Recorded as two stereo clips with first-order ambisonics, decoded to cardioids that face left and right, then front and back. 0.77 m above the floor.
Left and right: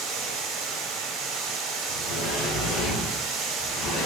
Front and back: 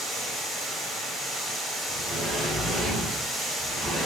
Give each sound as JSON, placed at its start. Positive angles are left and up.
{"t": 0.0, "sound": "running water", "azimuth_deg": -80, "distance_m": 1.0}
{"t": 1.9, "sound": "a sliding door", "azimuth_deg": 105, "distance_m": 1.6}